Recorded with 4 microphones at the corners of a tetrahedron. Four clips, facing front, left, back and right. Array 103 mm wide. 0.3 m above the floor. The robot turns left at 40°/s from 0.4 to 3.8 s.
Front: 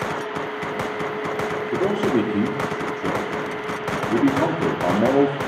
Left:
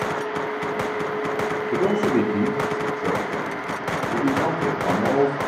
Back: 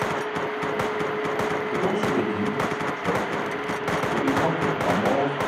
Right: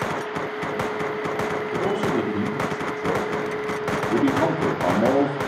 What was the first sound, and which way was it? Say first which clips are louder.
A man speaking: left 4 dB, front 5 dB; 80° left.